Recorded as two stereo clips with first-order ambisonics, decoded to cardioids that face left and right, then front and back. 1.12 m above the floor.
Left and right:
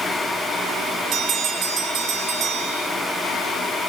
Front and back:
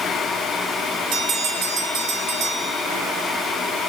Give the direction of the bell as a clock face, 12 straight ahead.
5 o'clock.